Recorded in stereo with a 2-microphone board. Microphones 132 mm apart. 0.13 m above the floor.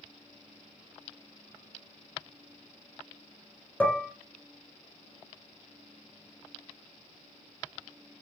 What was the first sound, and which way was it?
Dishes clattering, 10° left (ahead or behind).